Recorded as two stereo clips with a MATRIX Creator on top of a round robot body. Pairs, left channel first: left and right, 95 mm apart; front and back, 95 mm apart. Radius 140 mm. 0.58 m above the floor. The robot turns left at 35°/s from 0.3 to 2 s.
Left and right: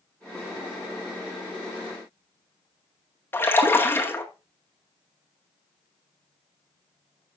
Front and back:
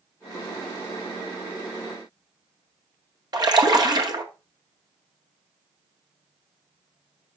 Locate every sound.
3.3 s a splash: 150° left, 1.6 m